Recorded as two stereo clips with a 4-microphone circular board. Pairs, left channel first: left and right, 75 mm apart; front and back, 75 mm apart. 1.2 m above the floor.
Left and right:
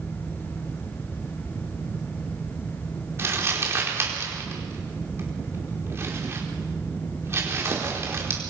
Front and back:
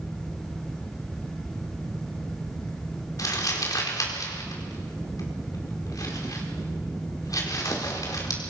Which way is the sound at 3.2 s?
35° right.